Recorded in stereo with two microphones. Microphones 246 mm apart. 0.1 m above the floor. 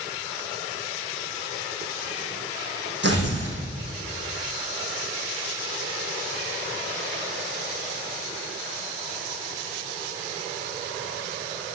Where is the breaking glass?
I don't hear breaking glass.